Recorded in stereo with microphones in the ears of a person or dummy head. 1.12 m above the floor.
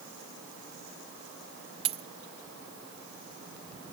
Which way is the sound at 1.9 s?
25° right (ahead or behind).